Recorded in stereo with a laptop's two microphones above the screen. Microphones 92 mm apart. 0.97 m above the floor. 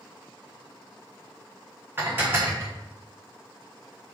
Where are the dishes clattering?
25° right (ahead or behind), 0.8 m.